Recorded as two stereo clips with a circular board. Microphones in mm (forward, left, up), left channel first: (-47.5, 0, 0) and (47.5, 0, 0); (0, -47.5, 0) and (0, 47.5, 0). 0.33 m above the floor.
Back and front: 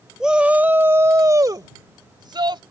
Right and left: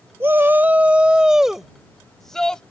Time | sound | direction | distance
0.2 | a shout | 75° left | ?